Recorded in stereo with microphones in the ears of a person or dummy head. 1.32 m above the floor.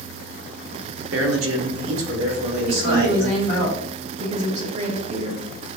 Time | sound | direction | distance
1.1 | a man speaking | 80° right | 0.8 m
2.7 | a woman speaking | 35° right (ahead or behind) | 1.0 m